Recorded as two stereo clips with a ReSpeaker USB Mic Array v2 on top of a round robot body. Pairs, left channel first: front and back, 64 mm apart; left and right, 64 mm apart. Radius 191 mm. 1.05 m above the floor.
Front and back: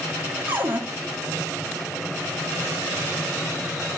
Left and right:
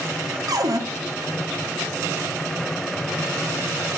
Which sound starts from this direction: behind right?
A cupboard door, at 0.5 s.